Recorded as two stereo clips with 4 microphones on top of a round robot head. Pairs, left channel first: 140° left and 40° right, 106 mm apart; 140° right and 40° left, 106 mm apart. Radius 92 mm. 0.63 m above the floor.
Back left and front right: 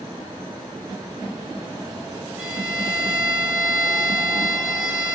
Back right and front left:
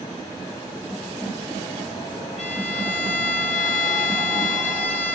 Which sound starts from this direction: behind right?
A violin, at 2.4 s.